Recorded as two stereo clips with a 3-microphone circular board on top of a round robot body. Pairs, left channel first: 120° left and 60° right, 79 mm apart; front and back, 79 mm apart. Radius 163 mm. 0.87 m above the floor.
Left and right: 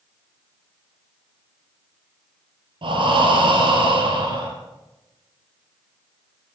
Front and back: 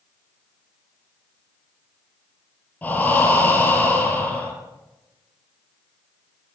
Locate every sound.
2.8 s breathing: 70° right, 5.5 m